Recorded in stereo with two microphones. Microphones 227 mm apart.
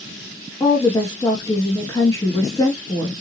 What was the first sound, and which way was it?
A woman speaking, 15° left (ahead or behind).